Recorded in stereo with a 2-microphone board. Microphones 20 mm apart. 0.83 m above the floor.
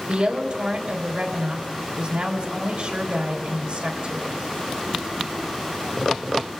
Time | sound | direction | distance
0.1 | a woman speaking | 60° right (ahead or behind) | 3 m